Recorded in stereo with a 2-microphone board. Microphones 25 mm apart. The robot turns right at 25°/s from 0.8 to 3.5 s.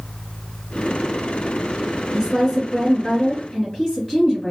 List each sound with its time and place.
2.1 s a woman speaking: 15° right (ahead or behind), 1.7 m; by 4.5 s centre (ahead or behind), 1.7 m